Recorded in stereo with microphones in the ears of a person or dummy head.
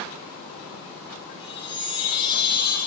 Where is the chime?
25° left (ahead or behind), 6 m.